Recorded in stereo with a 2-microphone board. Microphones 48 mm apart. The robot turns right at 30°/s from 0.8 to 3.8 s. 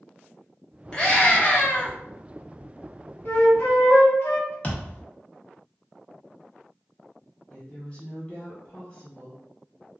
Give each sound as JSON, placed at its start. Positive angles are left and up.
{"t": 0.9, "sound": "a scream", "azimuth_deg": 20, "distance_m": 1.1}
{"t": 3.2, "sound": "a flute", "side_deg": 45, "distance_m": 0.9}
{"t": 4.6, "sound": "a thud", "side_deg": 30, "distance_m": 0.7}
{"t": 7.5, "sound": "a woman speaking", "side_deg": 25, "distance_m": 0.8}